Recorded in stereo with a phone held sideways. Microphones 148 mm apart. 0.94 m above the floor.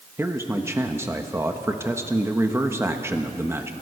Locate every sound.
0.2 s a man speaking: 15° right (ahead or behind), 1.1 m